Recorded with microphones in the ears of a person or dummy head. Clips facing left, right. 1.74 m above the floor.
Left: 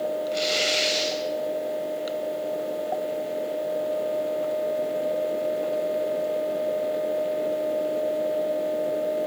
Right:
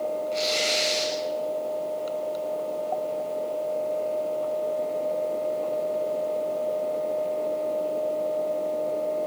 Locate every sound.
0.3 s tearing paper: 10° left (ahead or behind), 6.5 m